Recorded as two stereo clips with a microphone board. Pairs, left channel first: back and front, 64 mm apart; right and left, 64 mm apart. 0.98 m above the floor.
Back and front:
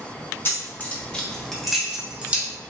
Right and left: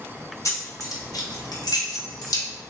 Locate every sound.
0.5 s keys jangling: 125° right, 1.0 m; by 2.5 s 70° right, 1.1 m